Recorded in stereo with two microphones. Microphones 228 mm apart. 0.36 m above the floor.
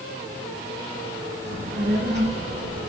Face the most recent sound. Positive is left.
turn(degrees=-45)  # may be behind; listen again after turning